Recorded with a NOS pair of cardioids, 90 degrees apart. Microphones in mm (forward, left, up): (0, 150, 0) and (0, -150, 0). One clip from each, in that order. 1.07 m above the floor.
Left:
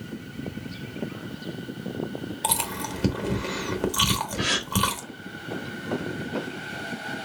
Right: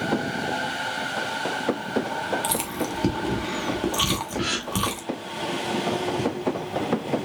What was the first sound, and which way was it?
Chewing, 5° left.